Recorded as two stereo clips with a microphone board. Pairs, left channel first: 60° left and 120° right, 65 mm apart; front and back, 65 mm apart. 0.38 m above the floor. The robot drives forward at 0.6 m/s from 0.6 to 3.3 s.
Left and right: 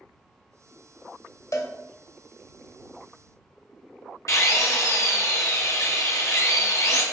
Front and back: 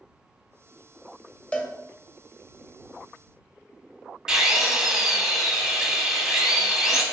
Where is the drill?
100° left, 0.9 m.